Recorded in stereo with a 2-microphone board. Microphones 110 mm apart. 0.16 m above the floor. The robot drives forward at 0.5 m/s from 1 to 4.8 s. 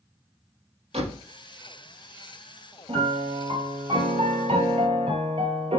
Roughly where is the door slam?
Right.